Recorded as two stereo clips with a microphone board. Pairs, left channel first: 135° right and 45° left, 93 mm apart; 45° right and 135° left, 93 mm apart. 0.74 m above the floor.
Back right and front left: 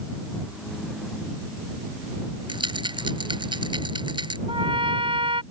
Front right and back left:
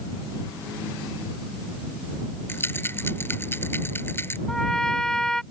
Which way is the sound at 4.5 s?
40° left.